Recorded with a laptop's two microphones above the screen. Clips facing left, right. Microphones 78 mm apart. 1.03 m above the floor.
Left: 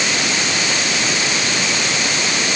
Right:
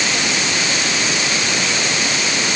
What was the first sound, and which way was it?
Only background noise.